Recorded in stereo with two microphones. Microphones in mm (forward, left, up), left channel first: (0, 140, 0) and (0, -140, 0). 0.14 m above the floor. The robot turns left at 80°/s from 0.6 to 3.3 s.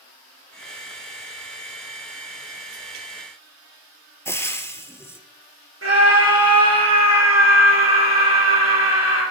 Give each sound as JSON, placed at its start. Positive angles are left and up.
{"t": 4.2, "sound": "frying", "side_deg": 10, "distance_m": 0.8}
{"t": 5.8, "sound": "a scream", "side_deg": -50, "distance_m": 2.5}